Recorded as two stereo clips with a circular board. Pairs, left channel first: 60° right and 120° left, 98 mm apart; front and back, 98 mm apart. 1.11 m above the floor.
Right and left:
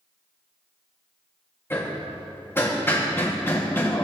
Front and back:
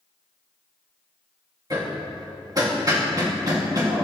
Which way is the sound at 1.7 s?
130° right.